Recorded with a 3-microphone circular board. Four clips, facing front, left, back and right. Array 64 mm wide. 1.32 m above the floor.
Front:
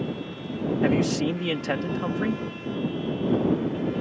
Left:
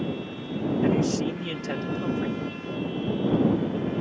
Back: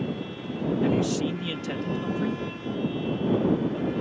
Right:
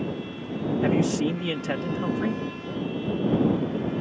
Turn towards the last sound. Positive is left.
turn(degrees=-20)